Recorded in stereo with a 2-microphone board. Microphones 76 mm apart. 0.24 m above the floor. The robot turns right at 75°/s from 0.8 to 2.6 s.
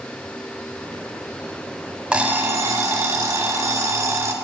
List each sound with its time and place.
2.1 s an alarm clock: 165° right, 0.6 m; by 4.3 s 130° right, 0.6 m